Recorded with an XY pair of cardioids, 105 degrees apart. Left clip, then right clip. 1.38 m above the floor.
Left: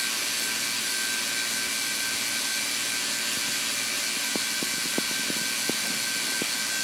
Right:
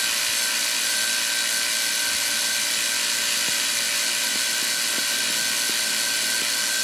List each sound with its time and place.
0.0 s a machine running: 65° right, 2 m